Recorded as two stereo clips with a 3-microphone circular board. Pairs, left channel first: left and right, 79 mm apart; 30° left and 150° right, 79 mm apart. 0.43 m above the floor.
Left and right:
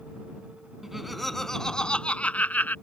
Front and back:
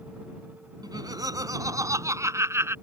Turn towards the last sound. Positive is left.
turn(degrees=155)